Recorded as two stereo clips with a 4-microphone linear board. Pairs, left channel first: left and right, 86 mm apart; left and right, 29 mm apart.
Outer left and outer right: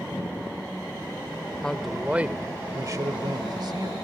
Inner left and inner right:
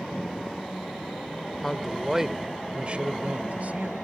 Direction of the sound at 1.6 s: 10° left (ahead or behind).